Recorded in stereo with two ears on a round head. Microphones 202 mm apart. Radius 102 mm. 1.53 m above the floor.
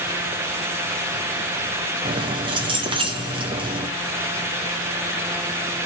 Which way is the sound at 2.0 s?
25° right (ahead or behind).